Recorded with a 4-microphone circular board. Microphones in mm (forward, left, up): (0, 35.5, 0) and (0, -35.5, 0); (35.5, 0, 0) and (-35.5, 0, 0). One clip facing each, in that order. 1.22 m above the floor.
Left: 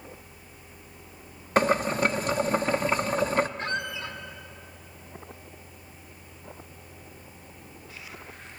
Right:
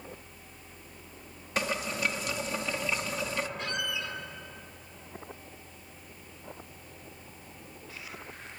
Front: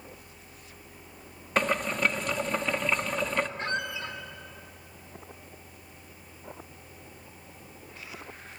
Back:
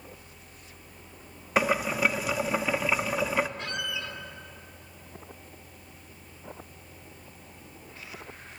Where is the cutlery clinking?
I don't hear cutlery clinking.